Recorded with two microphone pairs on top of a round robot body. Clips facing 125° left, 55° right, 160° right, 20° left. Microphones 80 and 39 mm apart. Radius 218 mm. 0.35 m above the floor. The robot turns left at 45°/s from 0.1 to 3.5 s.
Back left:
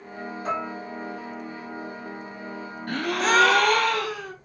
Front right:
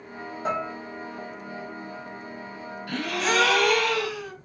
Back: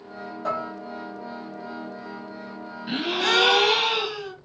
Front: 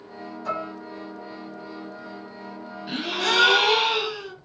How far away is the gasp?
About 1.0 m.